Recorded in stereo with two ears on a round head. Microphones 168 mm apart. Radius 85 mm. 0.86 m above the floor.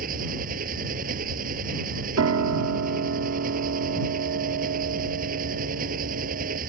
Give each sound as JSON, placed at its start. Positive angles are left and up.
{"t": 0.0, "sound": "an engine running", "side_deg": -45}
{"t": 2.2, "sound": "a piano", "side_deg": -70}